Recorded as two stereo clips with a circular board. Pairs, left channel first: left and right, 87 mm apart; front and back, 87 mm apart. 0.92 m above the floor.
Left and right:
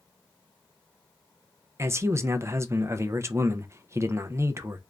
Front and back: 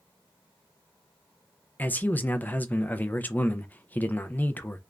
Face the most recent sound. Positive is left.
turn(degrees=-55)